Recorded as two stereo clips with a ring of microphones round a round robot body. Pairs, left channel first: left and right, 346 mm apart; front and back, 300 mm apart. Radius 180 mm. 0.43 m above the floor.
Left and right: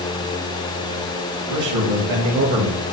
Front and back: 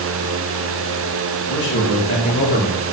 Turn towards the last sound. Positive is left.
turn(degrees=-50)